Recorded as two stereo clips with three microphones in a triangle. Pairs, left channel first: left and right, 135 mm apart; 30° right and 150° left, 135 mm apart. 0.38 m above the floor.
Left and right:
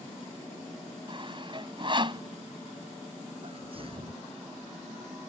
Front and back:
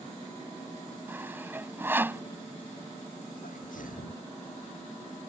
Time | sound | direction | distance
1.1 | sawing | 135° right | ?
3.4 | a sneeze | 45° right | ?